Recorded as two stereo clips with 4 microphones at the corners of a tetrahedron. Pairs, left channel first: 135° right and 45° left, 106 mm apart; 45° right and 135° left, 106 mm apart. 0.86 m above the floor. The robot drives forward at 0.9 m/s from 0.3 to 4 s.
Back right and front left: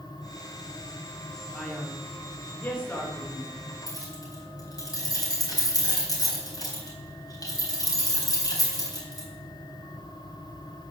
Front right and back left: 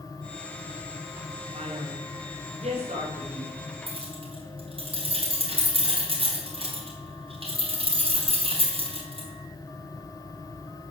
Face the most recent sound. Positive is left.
turn(degrees=170)